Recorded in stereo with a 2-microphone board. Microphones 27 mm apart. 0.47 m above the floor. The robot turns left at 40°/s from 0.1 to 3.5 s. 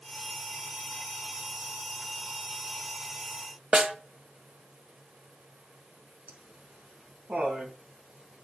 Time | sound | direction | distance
3.7 | a snare drum | 35° right (ahead or behind) | 1.7 m
6.3 | laughter | 75° right (ahead or behind) | 5 m